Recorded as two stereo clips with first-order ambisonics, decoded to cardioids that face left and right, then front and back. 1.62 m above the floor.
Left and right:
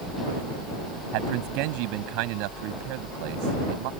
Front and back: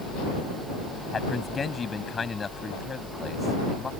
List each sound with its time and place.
1.1 s a man speaking: 75° right